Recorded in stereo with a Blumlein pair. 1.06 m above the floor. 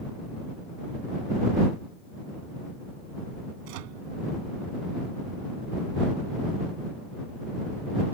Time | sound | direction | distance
3.6 | a microwave | 45° right | ?